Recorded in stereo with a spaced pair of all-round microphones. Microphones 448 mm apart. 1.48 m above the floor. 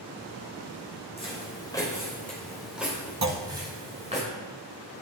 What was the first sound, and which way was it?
Footsteps, 15° left (ahead or behind).